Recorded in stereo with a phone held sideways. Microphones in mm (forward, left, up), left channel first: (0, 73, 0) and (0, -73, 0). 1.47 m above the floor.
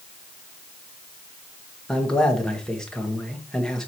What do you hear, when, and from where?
1.9 s a man speaking: 5° left (ahead or behind), 1.5 m